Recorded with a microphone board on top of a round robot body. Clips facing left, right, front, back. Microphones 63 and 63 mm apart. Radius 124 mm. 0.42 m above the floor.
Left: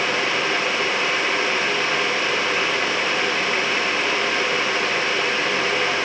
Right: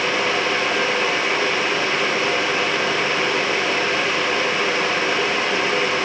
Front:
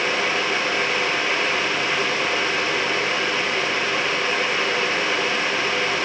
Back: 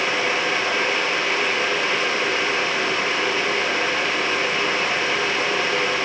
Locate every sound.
Only background noise.